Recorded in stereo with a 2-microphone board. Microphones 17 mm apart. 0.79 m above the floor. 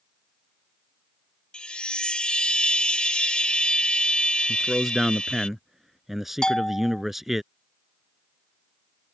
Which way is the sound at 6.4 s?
40° left (ahead or behind).